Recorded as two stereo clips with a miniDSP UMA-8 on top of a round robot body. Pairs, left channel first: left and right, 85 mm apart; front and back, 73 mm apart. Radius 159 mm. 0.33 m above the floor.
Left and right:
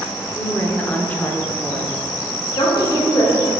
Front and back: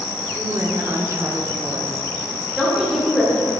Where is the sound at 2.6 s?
90° left, 1.7 m.